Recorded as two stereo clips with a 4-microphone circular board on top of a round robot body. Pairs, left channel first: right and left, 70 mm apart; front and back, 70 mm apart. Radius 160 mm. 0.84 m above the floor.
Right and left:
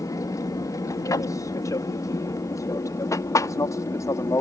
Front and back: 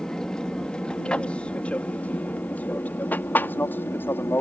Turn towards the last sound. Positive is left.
turn(degrees=-55)